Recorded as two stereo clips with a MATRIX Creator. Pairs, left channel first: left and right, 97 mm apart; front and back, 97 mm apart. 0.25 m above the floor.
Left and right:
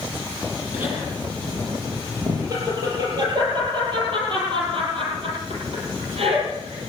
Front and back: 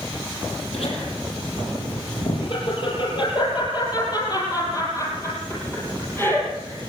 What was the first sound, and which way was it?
Laughter, 20° right.